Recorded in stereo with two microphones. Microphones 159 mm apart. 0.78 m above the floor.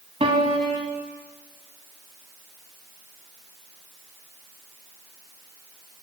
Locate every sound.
0.2 s a piano: 35° right (ahead or behind), 1.4 m